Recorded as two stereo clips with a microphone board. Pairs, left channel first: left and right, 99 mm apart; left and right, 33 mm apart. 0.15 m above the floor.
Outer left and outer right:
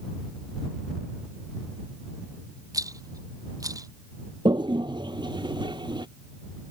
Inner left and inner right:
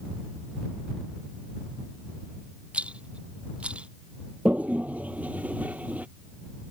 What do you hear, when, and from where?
2.7 s a rattle: 35° right (ahead or behind)
4.5 s a toilet flushing: 50° right (ahead or behind)